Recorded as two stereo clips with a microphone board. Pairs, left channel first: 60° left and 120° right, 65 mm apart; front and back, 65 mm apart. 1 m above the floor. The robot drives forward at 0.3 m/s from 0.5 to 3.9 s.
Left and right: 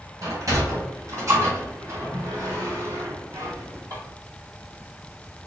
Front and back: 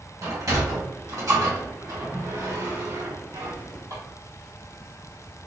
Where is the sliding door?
150° right, 1.7 m; by 4.0 s 160° right, 2.5 m.